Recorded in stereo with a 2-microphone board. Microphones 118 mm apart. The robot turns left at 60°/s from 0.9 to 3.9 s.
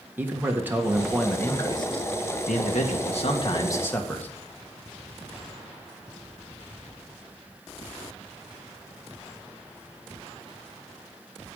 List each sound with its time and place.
0.2 s a man speaking: 165° right, 1.7 m; by 4.3 s 15° left, 1.7 m